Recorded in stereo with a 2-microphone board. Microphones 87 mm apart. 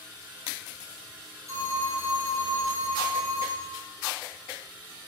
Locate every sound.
1.5 s a phone ringing: 35° right (ahead or behind), 5 m